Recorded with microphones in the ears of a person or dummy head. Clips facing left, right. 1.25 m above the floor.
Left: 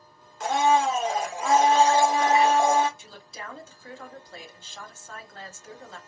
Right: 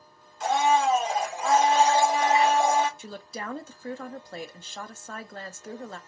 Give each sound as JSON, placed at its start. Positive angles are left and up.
{"t": 0.4, "sound": "a blender", "side_deg": 45, "distance_m": 1.0}
{"t": 3.0, "sound": "a woman speaking", "side_deg": -50, "distance_m": 0.6}